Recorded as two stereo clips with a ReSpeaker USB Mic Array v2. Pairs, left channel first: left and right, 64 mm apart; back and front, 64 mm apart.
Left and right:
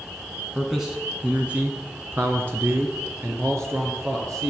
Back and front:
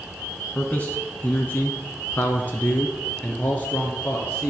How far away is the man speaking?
About 1.2 m.